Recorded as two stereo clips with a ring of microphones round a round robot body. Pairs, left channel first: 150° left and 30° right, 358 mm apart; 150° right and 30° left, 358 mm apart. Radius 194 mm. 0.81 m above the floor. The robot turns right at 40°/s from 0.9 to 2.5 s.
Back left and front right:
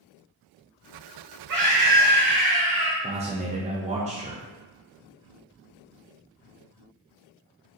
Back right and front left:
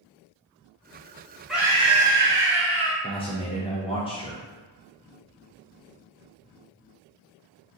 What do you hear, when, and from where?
1.5 s a scream: 60° right, 1.3 m; by 2.9 s 20° right, 1.3 m
3.0 s a man speaking: 85° right, 0.5 m